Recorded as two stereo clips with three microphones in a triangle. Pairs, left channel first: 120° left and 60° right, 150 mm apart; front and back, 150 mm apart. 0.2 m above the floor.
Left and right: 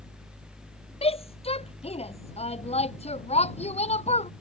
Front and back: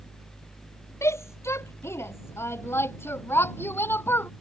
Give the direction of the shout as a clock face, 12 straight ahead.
10 o'clock.